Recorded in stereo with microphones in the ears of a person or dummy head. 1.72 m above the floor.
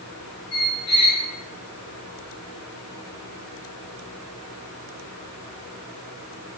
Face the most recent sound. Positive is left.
turn(degrees=35)  # may be behind; listen again after turning